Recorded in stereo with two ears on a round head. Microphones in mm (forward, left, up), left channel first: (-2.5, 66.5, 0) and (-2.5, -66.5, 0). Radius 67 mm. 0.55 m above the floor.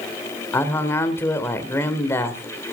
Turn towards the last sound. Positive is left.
turn(degrees=15)  # may be behind; listen again after turning